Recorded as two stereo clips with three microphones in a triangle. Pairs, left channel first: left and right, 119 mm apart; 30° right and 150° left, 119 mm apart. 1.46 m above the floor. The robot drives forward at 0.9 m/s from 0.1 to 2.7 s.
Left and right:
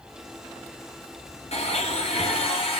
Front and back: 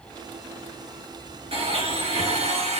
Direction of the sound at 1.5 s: 120° left.